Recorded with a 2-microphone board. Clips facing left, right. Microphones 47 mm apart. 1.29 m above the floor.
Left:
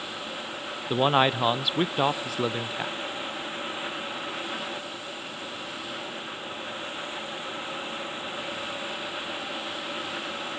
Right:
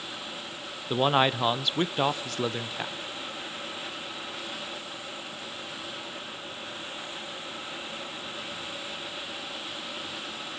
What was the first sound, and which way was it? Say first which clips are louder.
A man speaking: left 1 dB; 5° left (ahead or behind).